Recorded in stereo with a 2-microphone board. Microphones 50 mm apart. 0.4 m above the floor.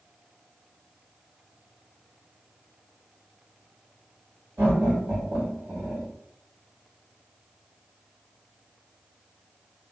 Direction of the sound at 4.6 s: 45° right (ahead or behind).